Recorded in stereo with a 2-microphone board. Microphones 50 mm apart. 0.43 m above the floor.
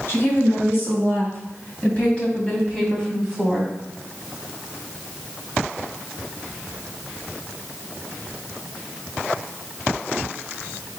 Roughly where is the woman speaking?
Left.